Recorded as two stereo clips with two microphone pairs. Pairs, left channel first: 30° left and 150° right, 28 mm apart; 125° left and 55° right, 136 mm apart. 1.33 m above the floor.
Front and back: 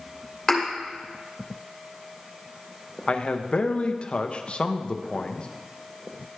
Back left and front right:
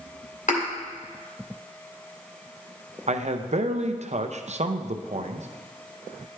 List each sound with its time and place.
0.5 s a thud: 110° left, 2.0 m
3.1 s a man speaking: 20° right, 0.6 m